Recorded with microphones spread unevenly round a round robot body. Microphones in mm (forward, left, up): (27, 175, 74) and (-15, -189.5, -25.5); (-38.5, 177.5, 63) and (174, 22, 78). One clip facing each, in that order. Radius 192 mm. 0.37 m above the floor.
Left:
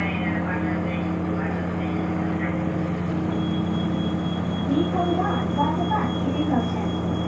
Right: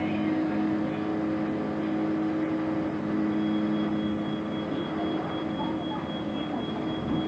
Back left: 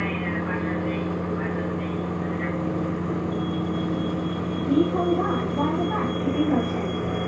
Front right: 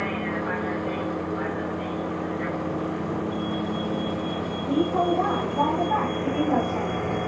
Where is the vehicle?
90° left; by 7.3 s 75° left.